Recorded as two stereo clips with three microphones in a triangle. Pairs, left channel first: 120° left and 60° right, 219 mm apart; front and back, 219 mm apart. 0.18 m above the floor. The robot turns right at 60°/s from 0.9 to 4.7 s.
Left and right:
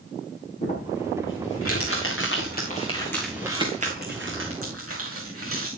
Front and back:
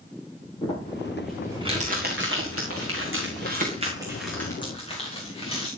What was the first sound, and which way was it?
Crumpling, 65° left.